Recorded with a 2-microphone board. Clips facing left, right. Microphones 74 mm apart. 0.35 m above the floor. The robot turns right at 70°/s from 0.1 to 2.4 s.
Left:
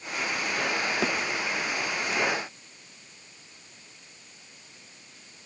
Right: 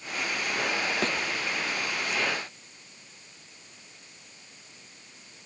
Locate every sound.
1.0 s a thud: 5° left (ahead or behind); by 1.2 s 15° left (ahead or behind)